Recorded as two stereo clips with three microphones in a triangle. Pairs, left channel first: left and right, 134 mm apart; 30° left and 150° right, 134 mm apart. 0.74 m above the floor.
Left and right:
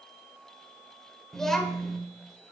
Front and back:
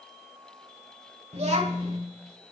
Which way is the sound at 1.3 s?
175° left.